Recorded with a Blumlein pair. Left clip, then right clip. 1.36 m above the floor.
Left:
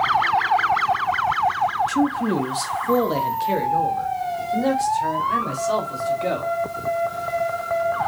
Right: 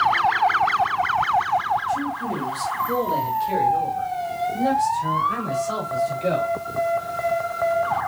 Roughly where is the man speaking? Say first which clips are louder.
Left 3 dB; ahead left.